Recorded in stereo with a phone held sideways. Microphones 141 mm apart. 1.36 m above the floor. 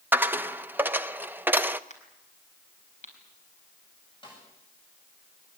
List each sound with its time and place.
0.1 s a dropped coin: 10° right (ahead or behind), 0.6 m
1.9 s a crack: 55° left (ahead or behind), 4.5 m
4.2 s a snare drum: 35° left (ahead or behind), 10 m